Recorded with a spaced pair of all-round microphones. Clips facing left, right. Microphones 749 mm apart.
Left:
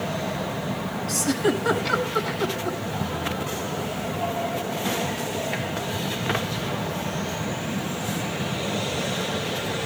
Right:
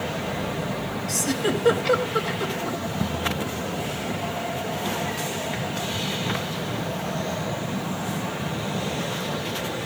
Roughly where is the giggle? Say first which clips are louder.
Left 2 dB; centre.